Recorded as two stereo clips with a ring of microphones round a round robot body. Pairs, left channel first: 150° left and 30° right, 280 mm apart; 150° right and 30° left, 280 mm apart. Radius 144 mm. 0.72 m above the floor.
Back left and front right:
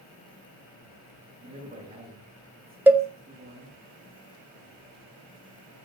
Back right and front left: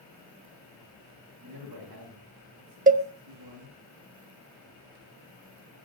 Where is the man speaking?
30° left, 7 m.